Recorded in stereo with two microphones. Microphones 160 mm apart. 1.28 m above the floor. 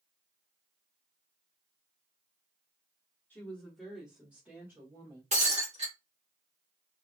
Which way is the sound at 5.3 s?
45° right (ahead or behind).